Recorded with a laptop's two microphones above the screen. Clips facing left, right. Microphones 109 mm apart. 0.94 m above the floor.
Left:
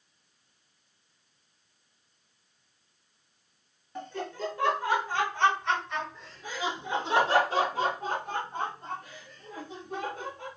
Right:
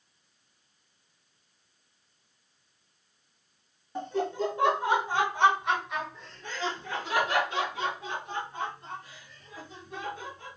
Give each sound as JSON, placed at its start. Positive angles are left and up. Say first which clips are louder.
{"t": 4.0, "sound": "laughter", "louder": "right 6 dB", "side_deg": -25, "distance_m": 1.8}